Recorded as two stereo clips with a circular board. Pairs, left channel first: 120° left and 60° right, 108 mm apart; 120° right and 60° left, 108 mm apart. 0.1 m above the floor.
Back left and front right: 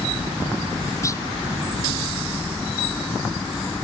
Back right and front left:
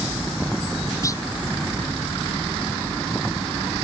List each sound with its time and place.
1.0 s a clunk: straight behind